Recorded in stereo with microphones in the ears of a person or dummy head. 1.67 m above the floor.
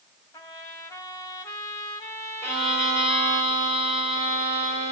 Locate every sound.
0.3 s a trumpet: 15° left (ahead or behind), 3.5 m
2.4 s a violin: 15° left (ahead or behind), 6 m